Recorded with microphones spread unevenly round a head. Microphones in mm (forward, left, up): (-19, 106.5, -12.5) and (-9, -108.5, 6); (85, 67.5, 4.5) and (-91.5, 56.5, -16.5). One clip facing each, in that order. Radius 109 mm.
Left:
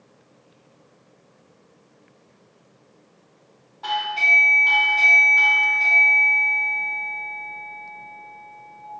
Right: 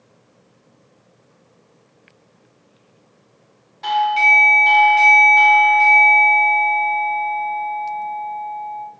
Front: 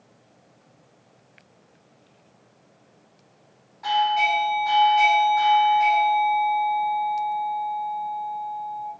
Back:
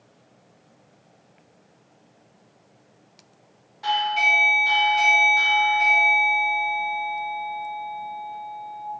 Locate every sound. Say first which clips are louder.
3.8 s a doorbell: right 9 dB, front 3 dB; 135° right, 0.7 m